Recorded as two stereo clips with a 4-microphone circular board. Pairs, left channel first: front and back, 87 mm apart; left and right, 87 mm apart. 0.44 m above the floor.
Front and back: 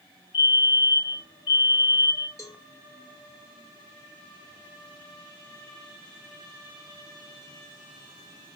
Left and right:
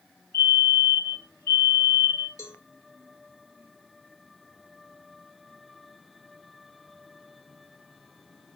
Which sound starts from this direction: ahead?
A fire alarm, at 0.3 s.